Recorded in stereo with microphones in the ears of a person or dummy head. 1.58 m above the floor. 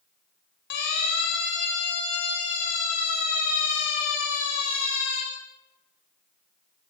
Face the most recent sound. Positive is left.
turn(degrees=70)  # may be behind; listen again after turning